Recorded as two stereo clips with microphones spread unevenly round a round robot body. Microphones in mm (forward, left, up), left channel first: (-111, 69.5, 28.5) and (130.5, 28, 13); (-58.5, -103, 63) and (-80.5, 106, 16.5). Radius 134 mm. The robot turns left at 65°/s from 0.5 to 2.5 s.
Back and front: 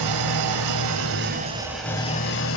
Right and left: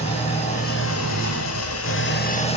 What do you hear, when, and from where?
0.0 s an engine running: 15° right, 1.5 m; by 2.6 s 145° right, 1.5 m